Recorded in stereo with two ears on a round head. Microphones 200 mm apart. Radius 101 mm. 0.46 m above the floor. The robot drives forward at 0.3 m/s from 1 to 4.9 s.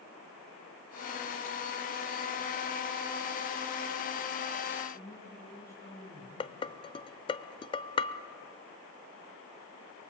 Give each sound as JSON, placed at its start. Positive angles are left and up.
{"t": 4.9, "sound": "a woman speaking", "side_deg": 15, "distance_m": 6.5}
{"t": 6.4, "sound": "dishes clattering", "side_deg": 25, "distance_m": 0.8}